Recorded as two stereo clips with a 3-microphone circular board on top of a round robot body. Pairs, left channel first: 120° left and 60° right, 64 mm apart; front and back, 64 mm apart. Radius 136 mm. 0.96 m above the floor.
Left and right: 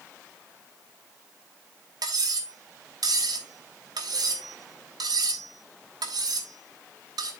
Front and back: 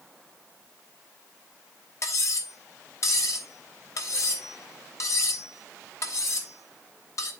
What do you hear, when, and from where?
2.0 s cutlery clinking: 40° right, 1.4 m